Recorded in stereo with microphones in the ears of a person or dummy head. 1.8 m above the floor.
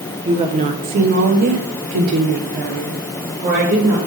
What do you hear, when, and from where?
0.2 s a woman speaking: 35° right (ahead or behind), 1.3 m; by 4.0 s 30° right (ahead or behind), 1.9 m